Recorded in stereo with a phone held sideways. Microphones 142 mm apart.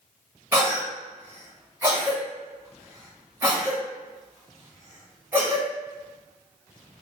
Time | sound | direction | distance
0.5 | a cough | 15° right (ahead or behind) | 1.1 m